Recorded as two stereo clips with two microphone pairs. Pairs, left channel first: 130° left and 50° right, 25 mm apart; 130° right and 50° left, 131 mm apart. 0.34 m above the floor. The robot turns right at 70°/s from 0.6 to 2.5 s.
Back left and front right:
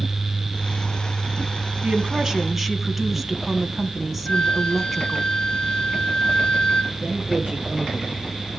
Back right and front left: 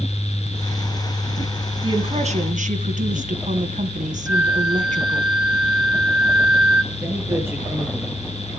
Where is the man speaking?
25° right, 8 m.